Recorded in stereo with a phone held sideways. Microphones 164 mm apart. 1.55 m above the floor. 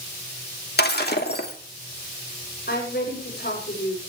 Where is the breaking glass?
70° left (ahead or behind), 2.5 m.